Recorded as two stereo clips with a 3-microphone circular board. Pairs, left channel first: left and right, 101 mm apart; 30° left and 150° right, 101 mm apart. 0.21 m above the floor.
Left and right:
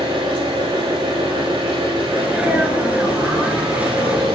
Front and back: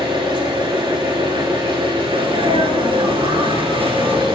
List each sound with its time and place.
0.0 s an engine running: 120° right, 6 m
2.1 s a sneeze: 165° right, 2.5 m